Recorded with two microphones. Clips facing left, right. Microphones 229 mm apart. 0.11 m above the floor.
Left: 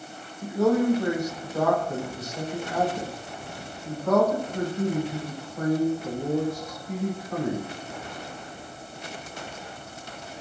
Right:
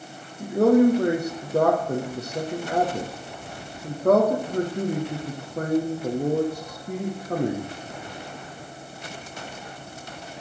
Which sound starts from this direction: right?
A man speaking, at 0.4 s.